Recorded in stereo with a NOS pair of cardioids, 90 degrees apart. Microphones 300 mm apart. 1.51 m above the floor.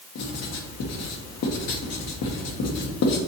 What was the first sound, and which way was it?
Writing, 60° left.